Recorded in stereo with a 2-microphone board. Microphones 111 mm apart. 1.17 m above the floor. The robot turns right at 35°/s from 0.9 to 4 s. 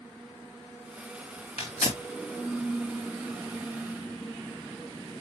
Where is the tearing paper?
75° left (ahead or behind), 2.5 m; by 2.0 s 60° left (ahead or behind), 2.5 m.